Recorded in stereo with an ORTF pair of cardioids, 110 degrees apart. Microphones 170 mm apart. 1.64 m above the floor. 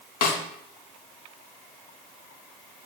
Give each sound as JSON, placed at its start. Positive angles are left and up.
{"t": 0.2, "sound": "a snare drum", "azimuth_deg": 65, "distance_m": 0.6}